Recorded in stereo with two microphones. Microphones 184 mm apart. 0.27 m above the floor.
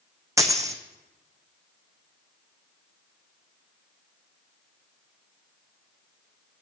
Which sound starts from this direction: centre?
A dropped coin, at 0.4 s.